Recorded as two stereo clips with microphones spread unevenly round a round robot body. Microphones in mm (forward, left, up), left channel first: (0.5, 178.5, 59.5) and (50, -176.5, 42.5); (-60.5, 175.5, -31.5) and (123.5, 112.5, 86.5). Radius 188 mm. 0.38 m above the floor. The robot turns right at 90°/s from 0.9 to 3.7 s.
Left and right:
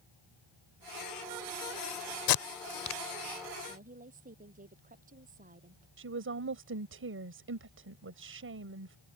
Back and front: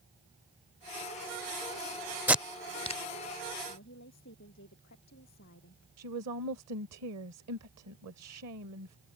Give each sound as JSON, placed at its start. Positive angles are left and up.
{"t": 2.3, "sound": "tape being pulled", "azimuth_deg": 85}
{"t": 3.7, "sound": "a woman speaking", "azimuth_deg": -155}
{"t": 6.0, "sound": "a woman speaking", "azimuth_deg": -30}